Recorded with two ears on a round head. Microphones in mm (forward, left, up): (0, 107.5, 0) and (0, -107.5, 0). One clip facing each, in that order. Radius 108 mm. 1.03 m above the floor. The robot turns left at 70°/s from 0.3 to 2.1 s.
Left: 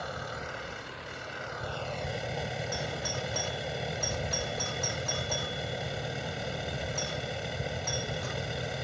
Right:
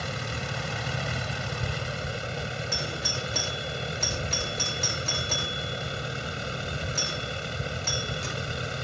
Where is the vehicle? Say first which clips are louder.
Right 4 dB; 45° right; by 8.8 s 170° right.